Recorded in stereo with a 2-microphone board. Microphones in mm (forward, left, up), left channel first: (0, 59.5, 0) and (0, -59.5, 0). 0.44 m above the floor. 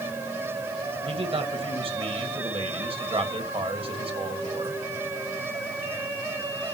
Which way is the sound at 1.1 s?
55° right (ahead or behind).